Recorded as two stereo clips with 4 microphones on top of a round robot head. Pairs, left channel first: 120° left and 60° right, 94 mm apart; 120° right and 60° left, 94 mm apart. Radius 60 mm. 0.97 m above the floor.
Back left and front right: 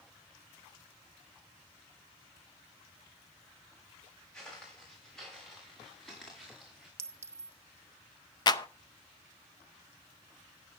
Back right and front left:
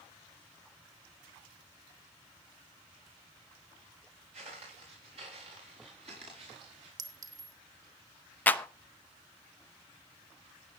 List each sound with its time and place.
4.3 s footsteps: 40° left, 9.5 m; by 6.9 s 30° left, 7 m
7.0 s a clink: 5° left, 1.3 m
8.5 s a clap: 165° left, 0.9 m